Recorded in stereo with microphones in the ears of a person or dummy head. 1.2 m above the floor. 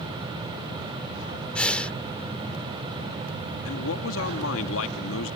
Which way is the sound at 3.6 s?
75° left (ahead or behind).